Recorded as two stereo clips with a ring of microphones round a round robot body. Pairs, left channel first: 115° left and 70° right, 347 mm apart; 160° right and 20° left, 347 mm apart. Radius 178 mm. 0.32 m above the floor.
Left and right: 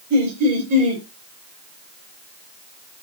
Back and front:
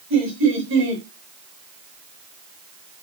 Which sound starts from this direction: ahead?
Laughter, at 0.1 s.